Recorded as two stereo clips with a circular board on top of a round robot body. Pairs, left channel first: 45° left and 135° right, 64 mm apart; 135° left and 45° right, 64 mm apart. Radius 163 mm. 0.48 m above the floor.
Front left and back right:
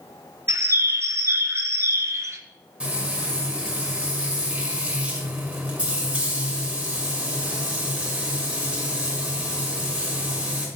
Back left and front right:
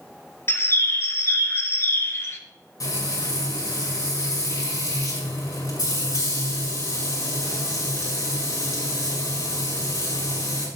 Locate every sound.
0.5 s a bird: 175° right, 1.2 m
2.8 s frying: 155° left, 5 m